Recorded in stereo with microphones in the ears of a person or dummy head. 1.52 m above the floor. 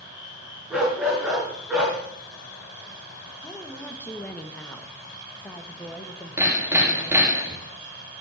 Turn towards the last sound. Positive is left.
turn(degrees=-20)  # may be behind; listen again after turning